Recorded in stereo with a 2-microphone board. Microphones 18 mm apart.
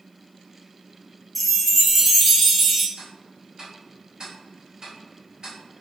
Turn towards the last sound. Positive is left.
turn(degrees=-50)  # may be behind; listen again after turning